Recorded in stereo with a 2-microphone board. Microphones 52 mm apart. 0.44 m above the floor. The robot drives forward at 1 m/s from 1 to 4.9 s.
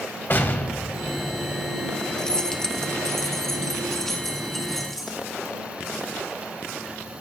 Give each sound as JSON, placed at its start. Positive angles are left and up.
{"t": 0.3, "sound": "an explosion", "side_deg": 45, "distance_m": 1.5}
{"t": 2.2, "sound": "keys jangling", "side_deg": 15, "distance_m": 0.9}